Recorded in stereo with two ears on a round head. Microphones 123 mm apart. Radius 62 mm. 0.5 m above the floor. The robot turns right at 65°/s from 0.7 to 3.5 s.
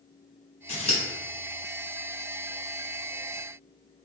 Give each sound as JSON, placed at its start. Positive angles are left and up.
{"t": 0.7, "sound": "scissors", "side_deg": 45, "distance_m": 1.6}